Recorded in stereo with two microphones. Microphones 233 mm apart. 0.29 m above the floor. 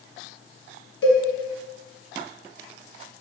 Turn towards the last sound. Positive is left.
turn(degrees=80)